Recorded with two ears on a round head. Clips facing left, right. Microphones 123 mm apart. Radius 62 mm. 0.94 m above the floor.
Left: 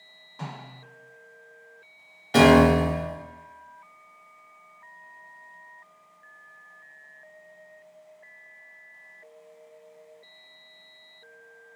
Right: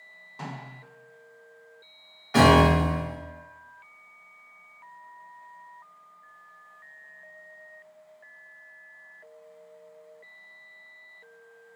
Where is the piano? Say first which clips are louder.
Left 2 dB; 30° left (ahead or behind), 0.5 m.